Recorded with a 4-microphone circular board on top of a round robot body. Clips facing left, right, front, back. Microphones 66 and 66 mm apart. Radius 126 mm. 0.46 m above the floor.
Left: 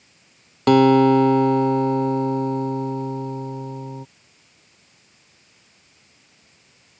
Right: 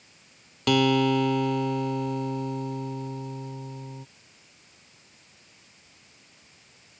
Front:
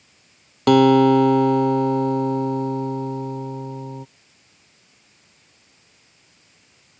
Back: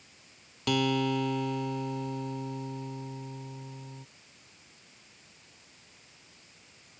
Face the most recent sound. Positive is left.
turn(degrees=35)